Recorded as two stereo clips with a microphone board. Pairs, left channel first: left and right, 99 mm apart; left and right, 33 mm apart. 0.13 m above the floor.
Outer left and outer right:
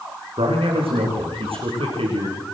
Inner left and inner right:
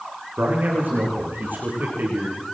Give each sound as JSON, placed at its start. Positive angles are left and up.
{"t": 0.4, "sound": "a man speaking", "side_deg": -80, "distance_m": 9.5}